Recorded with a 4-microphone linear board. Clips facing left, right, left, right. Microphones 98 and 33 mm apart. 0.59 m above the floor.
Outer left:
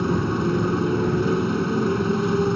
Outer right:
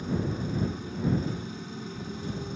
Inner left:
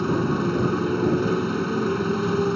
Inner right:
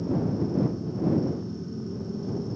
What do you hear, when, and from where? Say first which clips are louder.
0.0 s a motorcycle: outer left 9 dB, inner left 5 dB; 85° left